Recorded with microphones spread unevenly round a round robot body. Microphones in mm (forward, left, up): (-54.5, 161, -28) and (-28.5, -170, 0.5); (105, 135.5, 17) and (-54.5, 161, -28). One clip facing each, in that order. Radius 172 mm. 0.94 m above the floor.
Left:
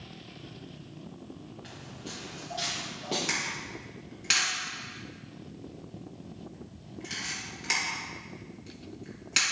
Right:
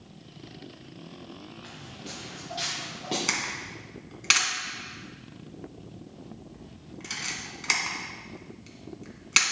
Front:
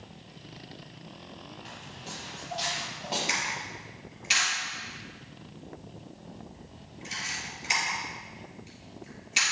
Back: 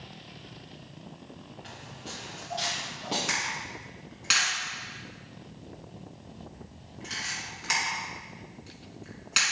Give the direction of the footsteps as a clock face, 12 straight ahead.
5 o'clock.